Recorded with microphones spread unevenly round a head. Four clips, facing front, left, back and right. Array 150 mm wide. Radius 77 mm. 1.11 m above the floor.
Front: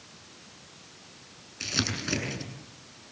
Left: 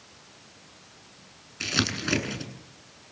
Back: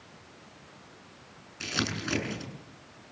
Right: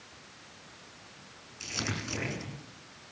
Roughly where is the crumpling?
Left.